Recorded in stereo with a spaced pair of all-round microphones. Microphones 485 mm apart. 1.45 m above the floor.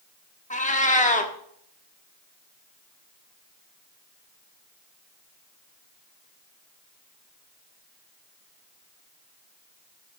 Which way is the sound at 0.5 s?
15° left (ahead or behind).